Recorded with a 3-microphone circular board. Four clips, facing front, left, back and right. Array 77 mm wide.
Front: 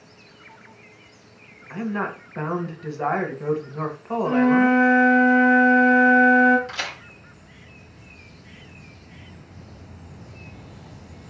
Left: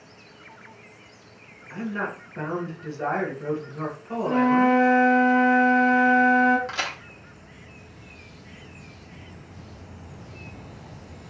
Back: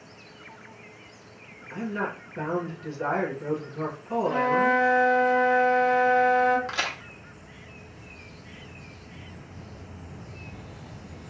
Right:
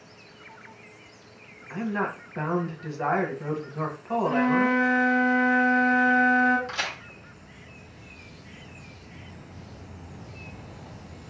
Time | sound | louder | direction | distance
1.7 | a woman speaking | right 1 dB, front 3 dB | 25° right | 0.9 m
4.2 | a flute | left 4 dB, front 5 dB | straight ahead | 1.5 m
6.7 | a crack | left 2 dB, back 1 dB | 150° left | 1.1 m